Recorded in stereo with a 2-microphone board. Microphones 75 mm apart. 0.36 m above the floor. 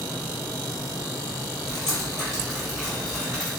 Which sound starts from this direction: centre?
Dripping, at 1.7 s.